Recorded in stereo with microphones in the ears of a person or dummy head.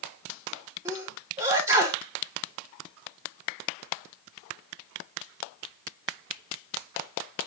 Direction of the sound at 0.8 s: 10° right (ahead or behind).